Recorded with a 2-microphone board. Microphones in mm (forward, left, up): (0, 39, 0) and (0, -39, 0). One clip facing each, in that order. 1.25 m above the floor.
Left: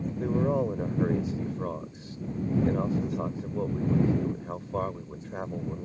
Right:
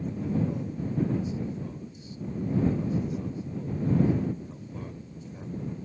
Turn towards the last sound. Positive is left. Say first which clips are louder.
# left 5 dB
turn(degrees=70)  # may be behind; listen again after turning